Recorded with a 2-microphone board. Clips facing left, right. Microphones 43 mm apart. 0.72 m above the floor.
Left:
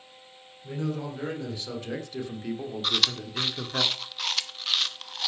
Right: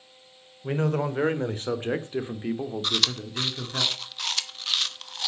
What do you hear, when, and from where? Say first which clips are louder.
0.6 s a man speaking: right 6 dB; 55° right (ahead or behind), 2.5 m; by 3.8 s 20° left (ahead or behind), 1.8 m
2.8 s chewing: left 2 dB; centre (ahead or behind), 0.9 m